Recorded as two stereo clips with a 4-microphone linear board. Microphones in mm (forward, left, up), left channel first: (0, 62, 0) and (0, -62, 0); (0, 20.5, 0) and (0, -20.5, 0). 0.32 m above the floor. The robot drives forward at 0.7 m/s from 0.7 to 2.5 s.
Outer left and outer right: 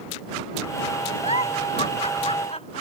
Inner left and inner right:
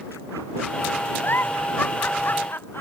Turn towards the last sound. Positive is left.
turn(degrees=55)  # may be behind; listen again after turning